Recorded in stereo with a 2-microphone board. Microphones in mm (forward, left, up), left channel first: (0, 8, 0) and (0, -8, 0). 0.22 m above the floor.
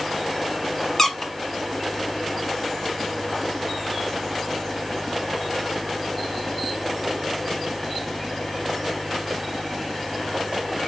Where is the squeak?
30° left (ahead or behind), 0.7 m.